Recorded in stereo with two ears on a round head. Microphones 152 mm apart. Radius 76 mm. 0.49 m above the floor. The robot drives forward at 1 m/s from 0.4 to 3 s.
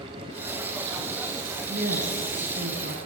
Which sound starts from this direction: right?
A woman speaking, at 1.7 s.